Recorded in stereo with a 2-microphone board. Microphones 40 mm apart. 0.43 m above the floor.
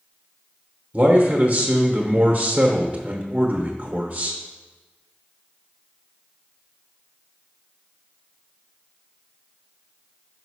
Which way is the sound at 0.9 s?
30° right (ahead or behind).